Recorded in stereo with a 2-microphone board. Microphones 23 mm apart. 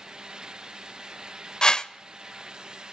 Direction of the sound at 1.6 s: 35° left (ahead or behind).